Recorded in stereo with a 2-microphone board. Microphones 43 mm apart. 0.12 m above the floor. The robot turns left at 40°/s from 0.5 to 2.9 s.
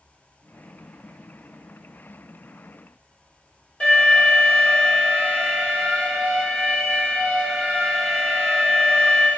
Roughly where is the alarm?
Left.